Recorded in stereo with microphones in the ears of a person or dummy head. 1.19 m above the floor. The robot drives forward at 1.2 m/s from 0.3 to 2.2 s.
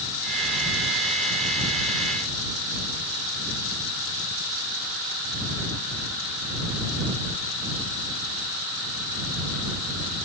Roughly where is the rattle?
I don't hear a rattle.